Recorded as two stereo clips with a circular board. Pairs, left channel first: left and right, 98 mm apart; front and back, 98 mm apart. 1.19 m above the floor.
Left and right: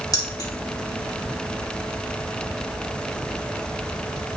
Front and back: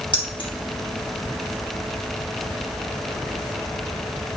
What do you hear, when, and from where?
0.1 s keys jangling: 35° left, 2 m